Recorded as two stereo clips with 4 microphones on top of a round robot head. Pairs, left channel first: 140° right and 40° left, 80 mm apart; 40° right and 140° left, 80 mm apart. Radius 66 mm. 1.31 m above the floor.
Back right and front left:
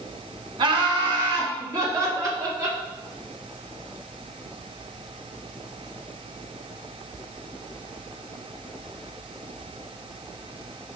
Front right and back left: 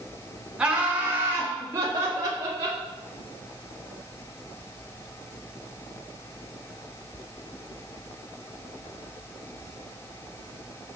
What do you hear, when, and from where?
0.6 s laughter: 60° left, 2 m; by 2.8 s 95° left, 4.5 m